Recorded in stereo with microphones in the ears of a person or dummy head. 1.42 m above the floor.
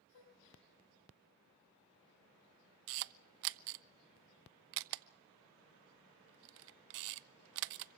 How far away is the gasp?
About 7.5 m.